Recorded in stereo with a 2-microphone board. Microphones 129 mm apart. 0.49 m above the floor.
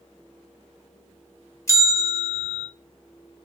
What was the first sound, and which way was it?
A bell, 25° left (ahead or behind).